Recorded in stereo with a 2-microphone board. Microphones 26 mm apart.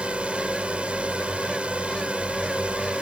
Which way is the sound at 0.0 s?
45° right (ahead or behind).